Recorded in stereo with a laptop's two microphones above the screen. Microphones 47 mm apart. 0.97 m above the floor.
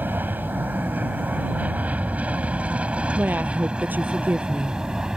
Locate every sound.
0.0 s an aircraft: 45° right (ahead or behind); by 5.2 s 15° right (ahead or behind)
3.2 s a woman speaking: 40° right (ahead or behind)